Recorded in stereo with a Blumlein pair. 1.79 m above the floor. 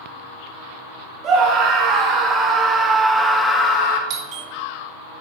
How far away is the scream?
About 1.7 m.